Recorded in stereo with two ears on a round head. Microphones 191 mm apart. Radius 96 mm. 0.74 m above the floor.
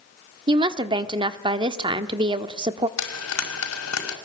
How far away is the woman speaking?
About 1.3 m.